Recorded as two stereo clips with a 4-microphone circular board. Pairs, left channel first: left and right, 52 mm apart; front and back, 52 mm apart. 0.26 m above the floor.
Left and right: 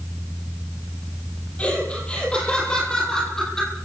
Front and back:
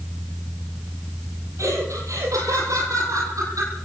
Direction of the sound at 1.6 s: 155° left.